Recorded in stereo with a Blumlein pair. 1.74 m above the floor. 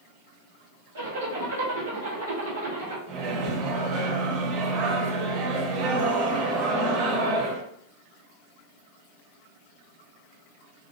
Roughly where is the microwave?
Ahead right.